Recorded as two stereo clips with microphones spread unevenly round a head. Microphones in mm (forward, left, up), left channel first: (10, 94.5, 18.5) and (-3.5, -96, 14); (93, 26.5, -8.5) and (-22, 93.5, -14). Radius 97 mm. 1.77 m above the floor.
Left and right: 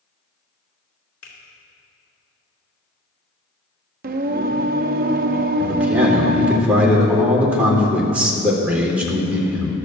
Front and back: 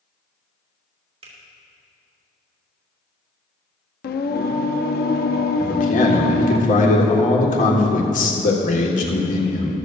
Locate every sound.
1.2 s a finger snap: 105° left, 3 m
4.0 s singing: 45° right, 0.5 m
5.6 s a man speaking: 10° right, 1.8 m